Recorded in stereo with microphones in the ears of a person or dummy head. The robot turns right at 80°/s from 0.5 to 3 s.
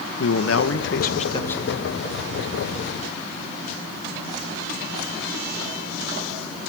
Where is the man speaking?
85° left, 1.7 m; by 2.0 s 155° right, 1.7 m.